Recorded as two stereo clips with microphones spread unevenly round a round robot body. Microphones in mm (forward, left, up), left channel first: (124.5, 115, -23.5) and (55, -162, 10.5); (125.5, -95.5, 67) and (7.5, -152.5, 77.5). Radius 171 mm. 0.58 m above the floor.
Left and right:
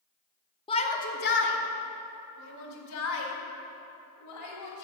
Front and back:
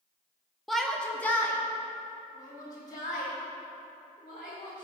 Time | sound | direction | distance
0.7 | a shout | 105° left | 0.8 m